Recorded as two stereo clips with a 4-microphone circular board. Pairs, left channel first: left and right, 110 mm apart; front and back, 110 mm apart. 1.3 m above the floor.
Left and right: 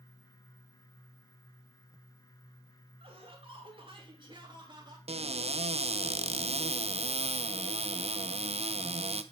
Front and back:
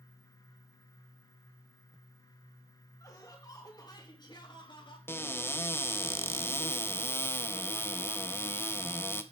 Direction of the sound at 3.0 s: 60° right.